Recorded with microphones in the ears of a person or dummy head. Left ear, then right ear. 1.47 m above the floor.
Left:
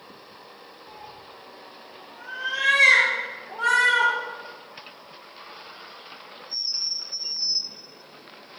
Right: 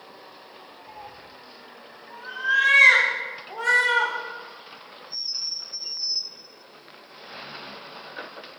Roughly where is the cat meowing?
Centre.